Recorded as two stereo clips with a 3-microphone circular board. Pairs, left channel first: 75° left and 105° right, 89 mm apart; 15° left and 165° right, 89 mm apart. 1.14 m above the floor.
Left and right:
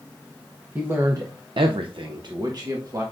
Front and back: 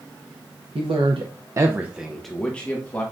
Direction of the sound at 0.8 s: 175° right.